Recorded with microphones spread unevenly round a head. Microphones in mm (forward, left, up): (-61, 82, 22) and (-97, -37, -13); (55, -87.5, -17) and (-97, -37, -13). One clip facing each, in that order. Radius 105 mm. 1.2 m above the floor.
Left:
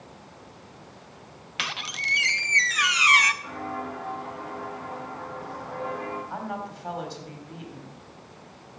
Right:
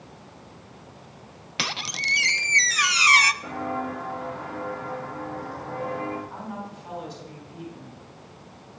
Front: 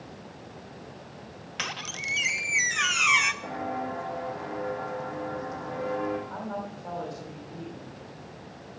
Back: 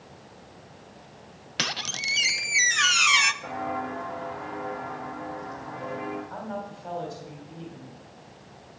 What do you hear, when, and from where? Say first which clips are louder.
1.6 s a squeak: right 3 dB, back 5 dB; 165° right, 0.6 m
3.4 s footsteps: right 4 dB, even; 80° right, 4 m; by 6.2 s 25° right, 3 m
6.3 s a woman speaking: left 2 dB, even; 90° left, 3.5 m